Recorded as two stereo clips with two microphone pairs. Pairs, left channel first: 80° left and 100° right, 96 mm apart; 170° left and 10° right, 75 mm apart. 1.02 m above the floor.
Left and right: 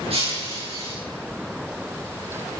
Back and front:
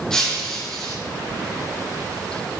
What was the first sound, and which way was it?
Breaking glass, 105° right.